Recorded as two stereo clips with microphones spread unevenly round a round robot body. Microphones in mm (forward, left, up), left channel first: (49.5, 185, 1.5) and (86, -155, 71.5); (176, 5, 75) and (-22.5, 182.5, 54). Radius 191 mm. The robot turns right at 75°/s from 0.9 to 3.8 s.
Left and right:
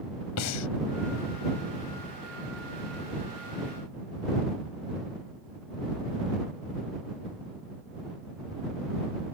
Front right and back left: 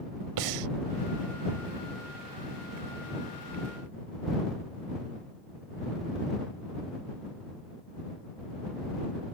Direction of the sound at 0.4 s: 150° left.